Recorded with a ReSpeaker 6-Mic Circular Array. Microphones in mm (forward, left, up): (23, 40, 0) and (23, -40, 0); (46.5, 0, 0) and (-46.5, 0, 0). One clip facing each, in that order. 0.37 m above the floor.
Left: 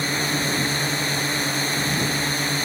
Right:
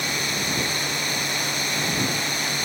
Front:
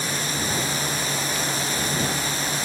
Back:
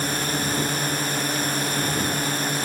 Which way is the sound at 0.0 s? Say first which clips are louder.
Left 3 dB, back 2 dB; 145° left.